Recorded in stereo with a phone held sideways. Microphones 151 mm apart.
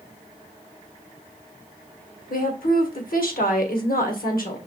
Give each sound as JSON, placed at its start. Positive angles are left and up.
{"t": 2.3, "sound": "a woman speaking", "side_deg": 75, "distance_m": 1.4}